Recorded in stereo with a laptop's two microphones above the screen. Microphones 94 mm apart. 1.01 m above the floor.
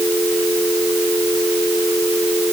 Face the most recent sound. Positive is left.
No sound to turn to.